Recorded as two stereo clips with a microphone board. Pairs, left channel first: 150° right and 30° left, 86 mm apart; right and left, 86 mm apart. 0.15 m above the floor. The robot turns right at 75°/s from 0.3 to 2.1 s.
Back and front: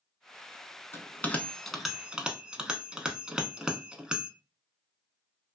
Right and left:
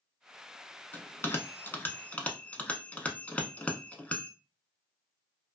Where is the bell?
125° right, 0.5 m; by 4.3 s 40° right, 0.5 m.